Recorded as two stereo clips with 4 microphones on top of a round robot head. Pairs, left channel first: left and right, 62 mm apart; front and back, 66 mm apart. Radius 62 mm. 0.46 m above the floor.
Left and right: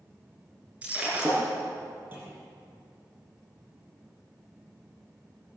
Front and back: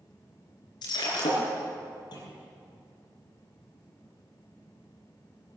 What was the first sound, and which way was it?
Breaking glass, 15° right.